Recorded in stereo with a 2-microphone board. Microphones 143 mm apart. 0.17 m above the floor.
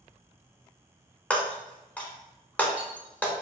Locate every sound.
1.3 s breaking glass: 10° left (ahead or behind), 0.8 m